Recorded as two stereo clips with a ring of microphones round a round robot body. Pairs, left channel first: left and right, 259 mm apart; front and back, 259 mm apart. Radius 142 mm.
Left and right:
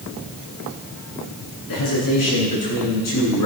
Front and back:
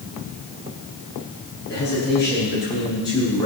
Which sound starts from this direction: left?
A man speaking, at 1.7 s.